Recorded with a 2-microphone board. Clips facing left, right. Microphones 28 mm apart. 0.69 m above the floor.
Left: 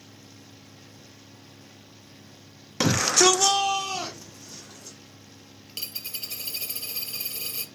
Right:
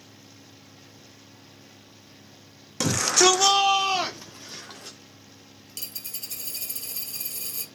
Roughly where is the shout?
Left.